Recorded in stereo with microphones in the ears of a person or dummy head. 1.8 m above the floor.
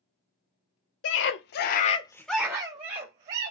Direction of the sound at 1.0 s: 75° left (ahead or behind).